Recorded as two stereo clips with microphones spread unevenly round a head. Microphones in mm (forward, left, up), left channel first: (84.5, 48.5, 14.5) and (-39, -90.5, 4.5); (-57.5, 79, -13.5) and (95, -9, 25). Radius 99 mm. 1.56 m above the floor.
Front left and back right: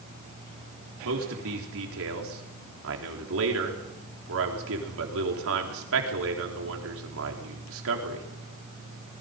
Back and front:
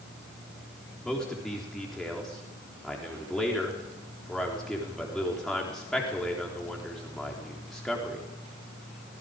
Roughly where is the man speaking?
Behind right.